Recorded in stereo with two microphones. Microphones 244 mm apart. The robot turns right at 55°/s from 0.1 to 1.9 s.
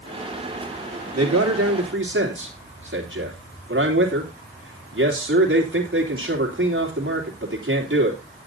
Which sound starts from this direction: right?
A man speaking, at 1.1 s.